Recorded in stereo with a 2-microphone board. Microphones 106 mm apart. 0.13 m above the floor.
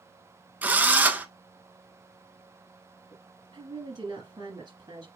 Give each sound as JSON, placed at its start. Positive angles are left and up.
{"t": 0.6, "sound": "a drill", "side_deg": -15, "distance_m": 0.7}
{"t": 3.1, "sound": "a woman speaking", "side_deg": -40, "distance_m": 2.0}